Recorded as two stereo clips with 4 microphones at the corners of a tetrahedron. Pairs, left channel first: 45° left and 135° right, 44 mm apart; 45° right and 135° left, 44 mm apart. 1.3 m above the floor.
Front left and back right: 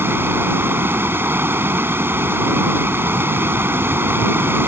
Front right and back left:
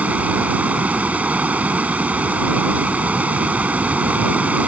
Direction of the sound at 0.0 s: 170° right.